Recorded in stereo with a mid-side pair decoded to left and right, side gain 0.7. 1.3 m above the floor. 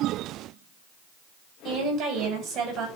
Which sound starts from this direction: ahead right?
A woman speaking, at 1.6 s.